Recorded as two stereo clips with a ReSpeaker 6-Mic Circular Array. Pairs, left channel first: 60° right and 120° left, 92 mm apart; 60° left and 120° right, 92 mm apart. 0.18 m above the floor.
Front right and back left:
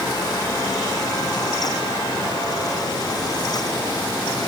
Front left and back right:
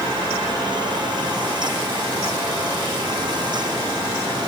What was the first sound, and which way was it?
Only background noise.